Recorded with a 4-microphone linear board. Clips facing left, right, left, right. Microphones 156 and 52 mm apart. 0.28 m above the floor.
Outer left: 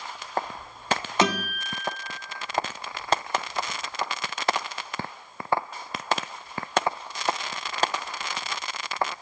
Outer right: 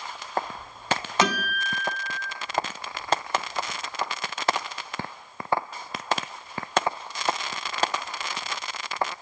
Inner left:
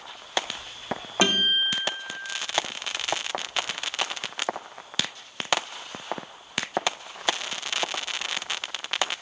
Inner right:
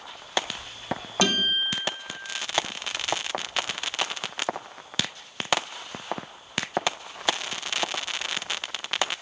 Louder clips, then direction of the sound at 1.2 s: Outer left 1 dB, inner left 2 dB; 25° left (ahead or behind).